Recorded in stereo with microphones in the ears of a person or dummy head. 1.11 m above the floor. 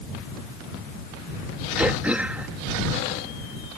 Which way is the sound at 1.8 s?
5° right (ahead or behind).